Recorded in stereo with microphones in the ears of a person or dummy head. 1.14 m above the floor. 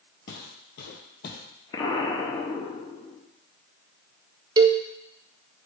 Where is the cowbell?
25° right (ahead or behind), 0.7 m.